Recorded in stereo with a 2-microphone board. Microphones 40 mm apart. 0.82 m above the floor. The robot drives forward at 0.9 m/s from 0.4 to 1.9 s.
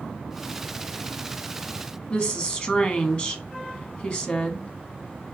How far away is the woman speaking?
About 1.3 m.